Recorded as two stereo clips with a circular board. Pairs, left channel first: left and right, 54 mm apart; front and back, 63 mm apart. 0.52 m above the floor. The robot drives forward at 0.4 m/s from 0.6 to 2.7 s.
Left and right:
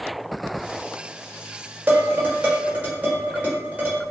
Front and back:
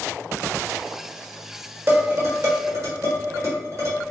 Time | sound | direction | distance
1.9 | dishes clattering | 135° right | 0.8 m